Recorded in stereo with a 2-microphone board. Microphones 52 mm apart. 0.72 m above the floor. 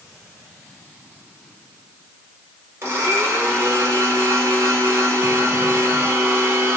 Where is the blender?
50° right (ahead or behind), 1.4 m.